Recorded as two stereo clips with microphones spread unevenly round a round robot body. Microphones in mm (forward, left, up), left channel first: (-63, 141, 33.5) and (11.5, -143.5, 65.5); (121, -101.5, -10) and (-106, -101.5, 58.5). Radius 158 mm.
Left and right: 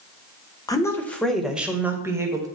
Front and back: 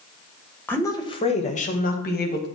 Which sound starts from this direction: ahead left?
A woman speaking, at 0.7 s.